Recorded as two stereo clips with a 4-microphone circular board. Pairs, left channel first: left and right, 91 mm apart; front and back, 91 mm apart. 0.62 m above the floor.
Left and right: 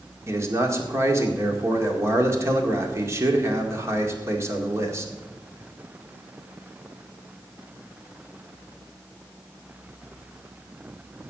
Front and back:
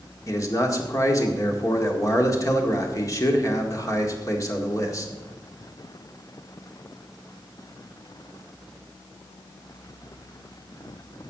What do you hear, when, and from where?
0.3 s a man speaking: 40° right, 1.9 m